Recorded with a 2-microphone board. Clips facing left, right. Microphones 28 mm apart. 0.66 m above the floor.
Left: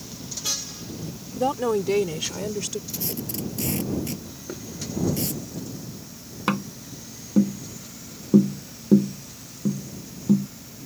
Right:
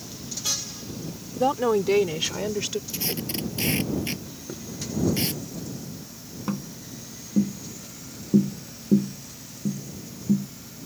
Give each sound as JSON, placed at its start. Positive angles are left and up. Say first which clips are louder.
{"t": 1.4, "sound": "a woman speaking", "louder": "right 1 dB", "side_deg": -5}
{"t": 2.9, "sound": "tape being pulled", "louder": "right 2 dB", "side_deg": -40}
{"t": 4.5, "sound": "knocking", "louder": "left 2 dB", "side_deg": 25}
{"t": 6.5, "sound": "tapping", "louder": "left 6 dB", "side_deg": 85}